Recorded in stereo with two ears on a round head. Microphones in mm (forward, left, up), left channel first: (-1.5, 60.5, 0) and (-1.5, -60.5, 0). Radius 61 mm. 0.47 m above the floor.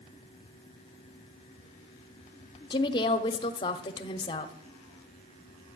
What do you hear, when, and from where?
2.7 s a woman speaking: 35° left (ahead or behind), 1.0 m